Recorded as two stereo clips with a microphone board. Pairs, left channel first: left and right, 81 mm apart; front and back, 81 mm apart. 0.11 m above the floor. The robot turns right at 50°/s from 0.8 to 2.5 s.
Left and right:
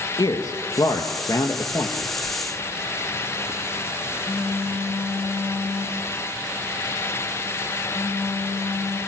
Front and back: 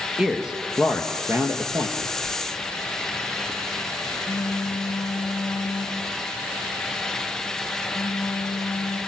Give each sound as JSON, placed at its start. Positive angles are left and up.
{"t": 0.2, "sound": "a man speaking", "azimuth_deg": 100, "distance_m": 2.0}
{"t": 2.0, "sound": "a phone buzzing", "azimuth_deg": -15, "distance_m": 3.0}